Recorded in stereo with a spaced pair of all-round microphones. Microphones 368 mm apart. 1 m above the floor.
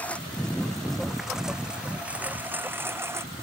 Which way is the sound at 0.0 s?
5° left (ahead or behind).